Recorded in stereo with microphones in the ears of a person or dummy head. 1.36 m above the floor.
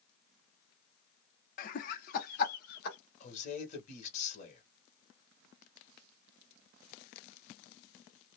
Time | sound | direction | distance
1.6 | laughter | 45° left (ahead or behind) | 0.6 m
3.2 | a man speaking | 40° left (ahead or behind) | 1.3 m